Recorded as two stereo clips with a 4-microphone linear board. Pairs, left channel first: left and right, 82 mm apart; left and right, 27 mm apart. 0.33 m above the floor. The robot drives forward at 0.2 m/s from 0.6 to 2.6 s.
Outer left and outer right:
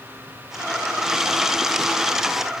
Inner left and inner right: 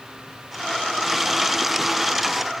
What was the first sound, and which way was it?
Only background noise.